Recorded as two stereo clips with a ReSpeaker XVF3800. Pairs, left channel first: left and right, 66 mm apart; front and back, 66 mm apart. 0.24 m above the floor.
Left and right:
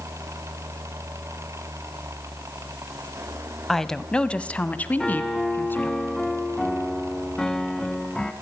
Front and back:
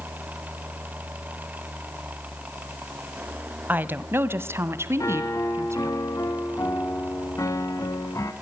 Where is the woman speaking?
170° left, 1.3 m; by 6.0 s 145° left, 2.5 m.